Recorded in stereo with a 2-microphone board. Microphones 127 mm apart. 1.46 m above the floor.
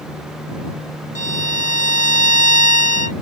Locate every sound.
1.1 s a violin: 80° left